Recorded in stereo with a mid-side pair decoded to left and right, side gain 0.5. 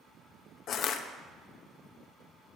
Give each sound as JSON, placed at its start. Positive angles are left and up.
{"t": 0.7, "sound": "crushing", "azimuth_deg": 65, "distance_m": 0.8}